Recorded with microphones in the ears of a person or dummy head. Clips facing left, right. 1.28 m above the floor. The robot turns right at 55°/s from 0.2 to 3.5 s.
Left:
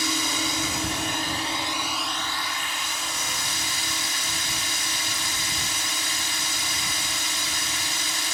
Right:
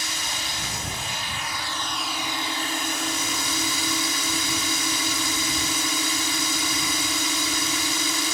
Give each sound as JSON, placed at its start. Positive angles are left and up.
{"t": 0.0, "sound": "a drone", "azimuth_deg": 80}